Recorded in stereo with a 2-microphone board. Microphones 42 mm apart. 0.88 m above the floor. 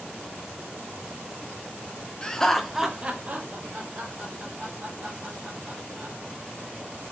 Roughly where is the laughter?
Left.